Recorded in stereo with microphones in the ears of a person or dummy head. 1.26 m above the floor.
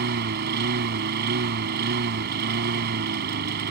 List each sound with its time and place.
0.0 s a lawn mower: 60° right (ahead or behind)